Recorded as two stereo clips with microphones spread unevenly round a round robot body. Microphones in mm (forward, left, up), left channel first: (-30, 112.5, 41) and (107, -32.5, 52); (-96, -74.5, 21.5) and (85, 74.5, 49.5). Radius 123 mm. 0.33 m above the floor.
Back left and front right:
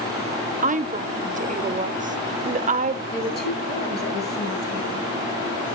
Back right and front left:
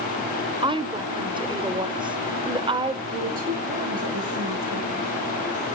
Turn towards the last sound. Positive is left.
turn(degrees=95)